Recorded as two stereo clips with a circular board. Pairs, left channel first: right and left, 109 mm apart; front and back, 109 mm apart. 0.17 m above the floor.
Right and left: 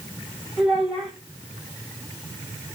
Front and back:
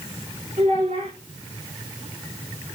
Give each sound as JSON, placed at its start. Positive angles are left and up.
{"t": 0.6, "sound": "a child speaking", "azimuth_deg": 175, "distance_m": 6.0}